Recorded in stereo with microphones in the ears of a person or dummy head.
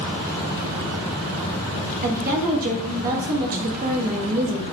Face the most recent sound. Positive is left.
turn(degrees=-50)  # may be behind; listen again after turning